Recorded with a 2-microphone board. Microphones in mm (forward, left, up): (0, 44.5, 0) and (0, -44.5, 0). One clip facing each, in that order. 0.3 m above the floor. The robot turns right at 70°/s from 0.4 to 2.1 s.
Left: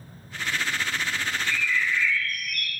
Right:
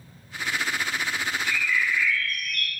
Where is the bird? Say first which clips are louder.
Right 1 dB; 125° right, 1.1 m; by 2.7 s 80° right, 1.1 m.